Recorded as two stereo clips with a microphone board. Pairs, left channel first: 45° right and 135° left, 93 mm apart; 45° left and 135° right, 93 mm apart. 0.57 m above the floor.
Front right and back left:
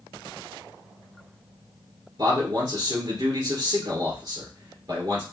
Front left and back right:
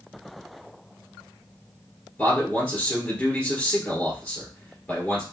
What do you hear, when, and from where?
2.2 s a man speaking: 110° left, 1.9 m